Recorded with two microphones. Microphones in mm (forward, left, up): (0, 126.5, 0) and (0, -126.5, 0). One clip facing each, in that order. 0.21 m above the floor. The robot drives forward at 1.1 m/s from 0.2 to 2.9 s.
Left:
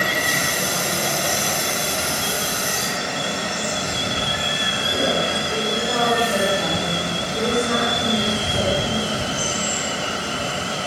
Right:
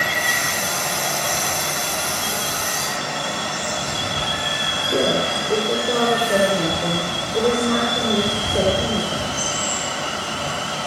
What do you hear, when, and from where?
0.0 s running water: 40° left (ahead or behind), 5 m; by 10.9 s 25° left (ahead or behind), 7.5 m
4.8 s a woman speaking: 45° right (ahead or behind), 8 m